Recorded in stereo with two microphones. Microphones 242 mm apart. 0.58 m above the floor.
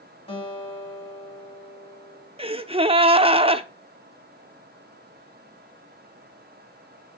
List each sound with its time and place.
0.3 s a guitar: 25° left (ahead or behind), 1.9 m
2.4 s a gasp: 25° right (ahead or behind), 0.5 m